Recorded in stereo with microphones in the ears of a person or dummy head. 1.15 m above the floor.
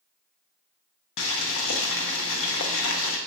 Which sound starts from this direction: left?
Boiling, at 1.2 s.